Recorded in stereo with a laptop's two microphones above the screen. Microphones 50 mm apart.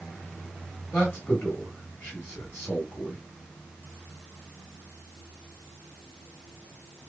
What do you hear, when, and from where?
0.9 s a man speaking: 40° left (ahead or behind), 1.7 m